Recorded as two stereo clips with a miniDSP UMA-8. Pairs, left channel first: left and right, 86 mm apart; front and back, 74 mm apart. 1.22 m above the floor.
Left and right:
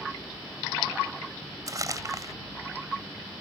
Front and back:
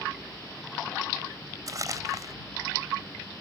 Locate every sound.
1.7 s crumpling: 140° right